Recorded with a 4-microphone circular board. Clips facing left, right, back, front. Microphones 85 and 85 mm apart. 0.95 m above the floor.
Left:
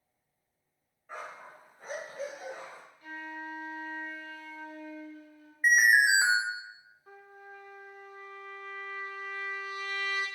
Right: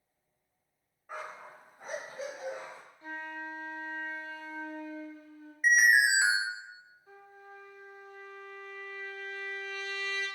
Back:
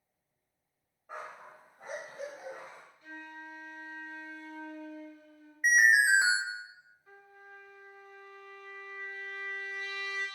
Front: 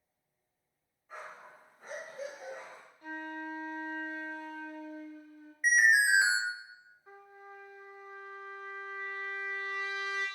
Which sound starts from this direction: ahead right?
A flute, at 3.0 s.